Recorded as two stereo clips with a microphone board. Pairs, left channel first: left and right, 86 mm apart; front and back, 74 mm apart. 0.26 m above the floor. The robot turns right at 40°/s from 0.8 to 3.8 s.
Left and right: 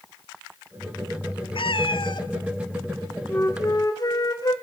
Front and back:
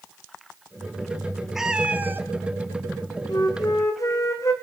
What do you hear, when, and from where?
1.6 s a cat meowing: 95° left, 0.9 m; by 2.3 s 125° left, 0.9 m
3.3 s a flute: 25° left, 2.5 m; by 4.5 s 45° left, 2.5 m